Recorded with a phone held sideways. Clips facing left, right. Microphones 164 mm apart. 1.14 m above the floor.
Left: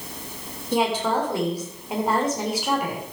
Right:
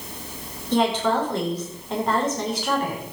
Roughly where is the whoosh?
I don't hear a whoosh.